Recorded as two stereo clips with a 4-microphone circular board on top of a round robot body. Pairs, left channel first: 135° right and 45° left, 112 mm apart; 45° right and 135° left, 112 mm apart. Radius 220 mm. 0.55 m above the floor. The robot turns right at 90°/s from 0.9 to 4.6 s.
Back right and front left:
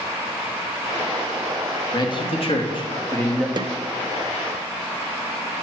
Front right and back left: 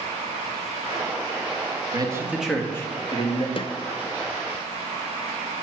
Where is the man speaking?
175° left, 1.7 m; by 3.5 s 45° right, 1.7 m.